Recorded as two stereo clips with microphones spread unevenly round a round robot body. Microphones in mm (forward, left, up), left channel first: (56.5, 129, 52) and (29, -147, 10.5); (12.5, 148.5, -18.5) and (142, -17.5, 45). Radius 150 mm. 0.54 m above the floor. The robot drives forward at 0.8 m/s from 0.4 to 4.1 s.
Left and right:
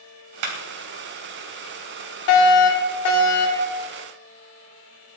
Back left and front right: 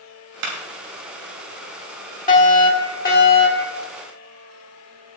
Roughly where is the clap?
Right.